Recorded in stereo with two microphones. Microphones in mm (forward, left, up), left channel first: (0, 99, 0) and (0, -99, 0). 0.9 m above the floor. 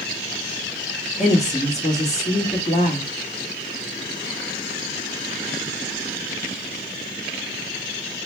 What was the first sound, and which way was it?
A woman speaking, 35° left (ahead or behind).